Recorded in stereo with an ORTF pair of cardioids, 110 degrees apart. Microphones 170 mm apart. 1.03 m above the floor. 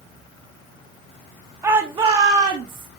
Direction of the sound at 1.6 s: 15° right.